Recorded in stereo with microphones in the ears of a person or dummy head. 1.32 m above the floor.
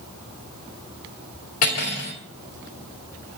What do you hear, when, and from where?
1.6 s cutlery clinking: 45° left (ahead or behind), 2.5 m